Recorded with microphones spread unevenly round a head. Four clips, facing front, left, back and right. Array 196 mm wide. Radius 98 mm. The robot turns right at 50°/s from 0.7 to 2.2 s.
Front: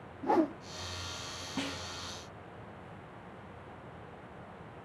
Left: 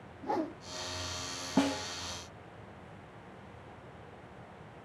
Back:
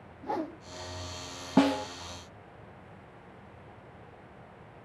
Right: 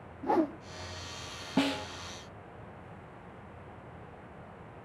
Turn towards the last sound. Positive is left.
turn(degrees=-155)